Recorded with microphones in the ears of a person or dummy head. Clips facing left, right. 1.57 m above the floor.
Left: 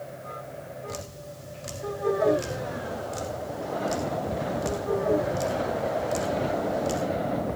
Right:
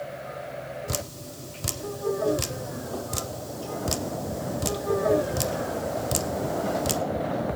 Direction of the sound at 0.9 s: 70° right (ahead or behind).